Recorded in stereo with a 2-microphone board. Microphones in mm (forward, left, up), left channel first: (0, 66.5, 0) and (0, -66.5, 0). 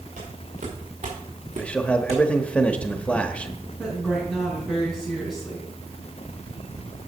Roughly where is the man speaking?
Centre.